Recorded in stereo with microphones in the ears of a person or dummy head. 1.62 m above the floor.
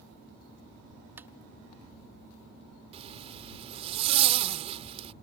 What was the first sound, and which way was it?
Tapping, 10° right (ahead or behind).